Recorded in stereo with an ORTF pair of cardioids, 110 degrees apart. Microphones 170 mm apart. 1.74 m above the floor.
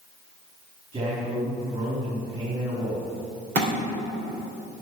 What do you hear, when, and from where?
0.9 s a man speaking: 35° right, 4.5 m
3.5 s a thud: 65° right, 3.5 m